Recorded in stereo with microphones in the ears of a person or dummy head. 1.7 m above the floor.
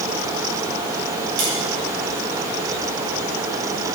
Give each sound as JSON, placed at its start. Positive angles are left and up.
{"t": 1.4, "sound": "tapping", "side_deg": -65, "distance_m": 7.0}